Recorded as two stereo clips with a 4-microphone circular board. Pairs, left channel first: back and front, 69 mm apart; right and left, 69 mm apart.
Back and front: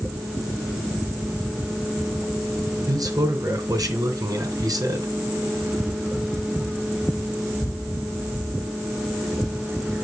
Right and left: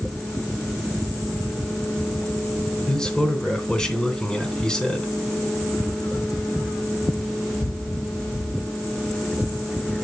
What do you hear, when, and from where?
2.9 s a man speaking: 10° right, 2.5 m